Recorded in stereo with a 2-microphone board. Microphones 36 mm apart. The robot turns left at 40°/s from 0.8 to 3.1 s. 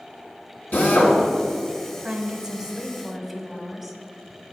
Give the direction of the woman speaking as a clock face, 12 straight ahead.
4 o'clock.